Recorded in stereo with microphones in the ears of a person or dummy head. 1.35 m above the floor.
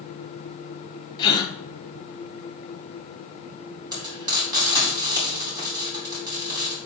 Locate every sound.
1.2 s a gasp: 25° left (ahead or behind), 0.9 m
3.9 s frying: 20° right (ahead or behind), 4 m